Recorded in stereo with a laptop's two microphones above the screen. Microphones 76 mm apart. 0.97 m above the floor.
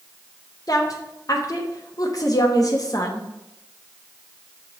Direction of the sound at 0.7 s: 50° left (ahead or behind).